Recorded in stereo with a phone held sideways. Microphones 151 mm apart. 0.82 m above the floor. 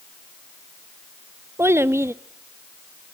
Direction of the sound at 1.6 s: 15° right (ahead or behind).